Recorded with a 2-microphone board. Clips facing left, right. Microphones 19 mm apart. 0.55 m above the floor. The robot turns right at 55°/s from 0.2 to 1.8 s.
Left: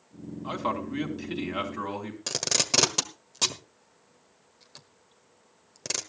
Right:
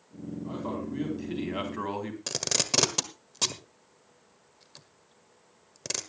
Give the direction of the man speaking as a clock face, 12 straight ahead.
8 o'clock.